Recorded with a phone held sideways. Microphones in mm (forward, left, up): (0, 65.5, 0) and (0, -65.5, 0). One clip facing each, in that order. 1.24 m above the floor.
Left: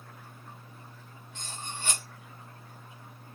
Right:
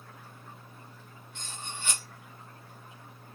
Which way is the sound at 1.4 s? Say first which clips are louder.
Left 2 dB; 40° left (ahead or behind).